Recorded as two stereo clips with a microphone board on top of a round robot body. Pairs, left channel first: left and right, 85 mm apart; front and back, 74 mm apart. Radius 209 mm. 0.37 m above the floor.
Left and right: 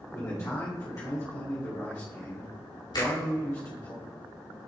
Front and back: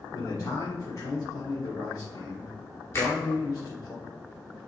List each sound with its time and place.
0.1 s a man speaking: 45° left, 2 m
2.9 s a finger snap: 60° left, 4 m